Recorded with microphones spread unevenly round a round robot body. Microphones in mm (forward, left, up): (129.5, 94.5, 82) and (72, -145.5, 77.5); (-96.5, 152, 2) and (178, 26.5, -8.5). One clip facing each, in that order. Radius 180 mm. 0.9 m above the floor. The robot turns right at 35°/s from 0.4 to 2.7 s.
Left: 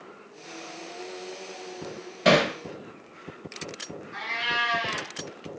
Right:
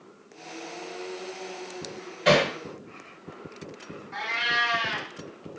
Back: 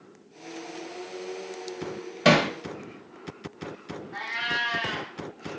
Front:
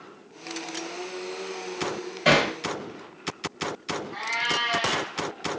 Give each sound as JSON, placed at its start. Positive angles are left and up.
{"t": 2.2, "sound": "hammering", "azimuth_deg": 120, "distance_m": 0.6}
{"t": 4.1, "sound": "a cat meowing", "azimuth_deg": -120, "distance_m": 1.2}